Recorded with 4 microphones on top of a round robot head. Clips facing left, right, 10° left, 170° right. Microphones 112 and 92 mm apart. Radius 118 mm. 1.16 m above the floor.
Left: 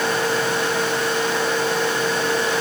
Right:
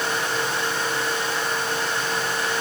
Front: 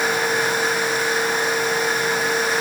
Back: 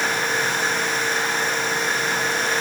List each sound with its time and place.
Only background noise.